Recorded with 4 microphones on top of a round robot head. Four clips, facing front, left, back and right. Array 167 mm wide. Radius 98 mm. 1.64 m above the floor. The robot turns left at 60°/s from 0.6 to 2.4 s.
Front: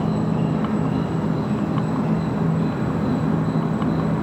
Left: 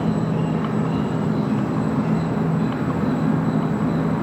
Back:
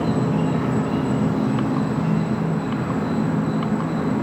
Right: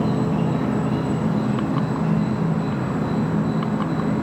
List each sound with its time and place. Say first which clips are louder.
0.0 s an insect: right 1 dB, back 1 dB; 175° right, 1.3 m; by 4.2 s 75° left, 1.3 m